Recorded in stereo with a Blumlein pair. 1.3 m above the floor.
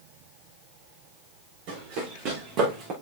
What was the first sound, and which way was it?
Running footsteps, 45° right.